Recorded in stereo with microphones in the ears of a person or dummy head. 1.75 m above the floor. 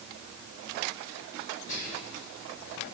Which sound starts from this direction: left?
Whispering, at 1.7 s.